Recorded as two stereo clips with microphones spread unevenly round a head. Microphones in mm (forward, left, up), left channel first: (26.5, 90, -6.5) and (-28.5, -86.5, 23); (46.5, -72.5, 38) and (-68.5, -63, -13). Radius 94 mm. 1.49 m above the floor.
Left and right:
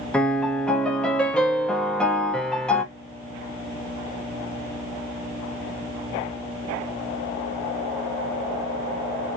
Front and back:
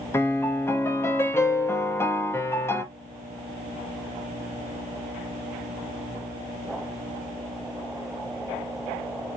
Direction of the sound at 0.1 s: 20° right.